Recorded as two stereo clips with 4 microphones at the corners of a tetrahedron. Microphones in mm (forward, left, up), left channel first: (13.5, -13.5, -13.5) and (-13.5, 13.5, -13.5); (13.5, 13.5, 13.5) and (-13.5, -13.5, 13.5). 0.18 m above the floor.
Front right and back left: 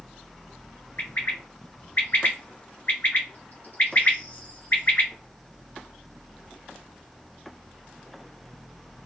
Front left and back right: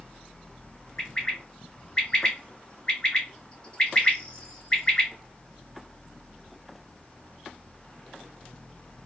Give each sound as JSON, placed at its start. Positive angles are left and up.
{"t": 1.0, "sound": "a bird", "azimuth_deg": -15, "distance_m": 1.9}